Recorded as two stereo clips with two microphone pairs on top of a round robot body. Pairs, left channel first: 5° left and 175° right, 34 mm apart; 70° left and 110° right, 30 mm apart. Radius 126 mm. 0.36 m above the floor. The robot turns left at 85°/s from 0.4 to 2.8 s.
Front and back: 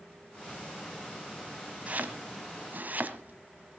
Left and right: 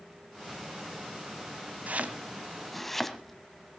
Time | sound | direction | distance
1.9 | chopping | 125° right | 1.7 m